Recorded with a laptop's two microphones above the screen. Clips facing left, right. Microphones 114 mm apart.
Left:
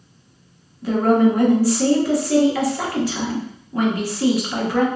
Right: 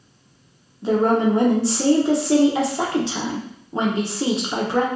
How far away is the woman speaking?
About 0.6 m.